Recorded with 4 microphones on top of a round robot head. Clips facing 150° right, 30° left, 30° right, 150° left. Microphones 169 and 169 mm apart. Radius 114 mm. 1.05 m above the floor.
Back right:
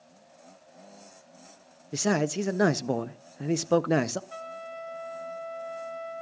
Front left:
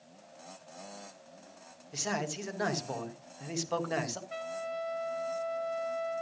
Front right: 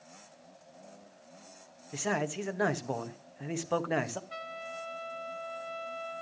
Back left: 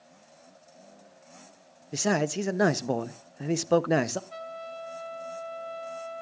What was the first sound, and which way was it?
A man speaking, 170° right.